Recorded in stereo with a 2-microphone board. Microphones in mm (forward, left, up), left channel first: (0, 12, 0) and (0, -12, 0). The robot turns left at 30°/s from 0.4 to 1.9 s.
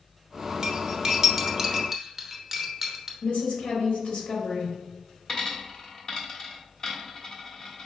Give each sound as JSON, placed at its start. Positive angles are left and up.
{"t": 0.6, "sound": "cutlery clinking", "side_deg": -30, "distance_m": 0.8}
{"t": 3.2, "sound": "a woman speaking", "side_deg": 85, "distance_m": 1.8}
{"t": 5.3, "sound": "a dropped coin", "side_deg": 35, "distance_m": 1.2}